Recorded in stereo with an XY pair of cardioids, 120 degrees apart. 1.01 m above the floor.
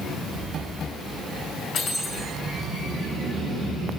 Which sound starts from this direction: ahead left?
Cutlery clinking, at 1.7 s.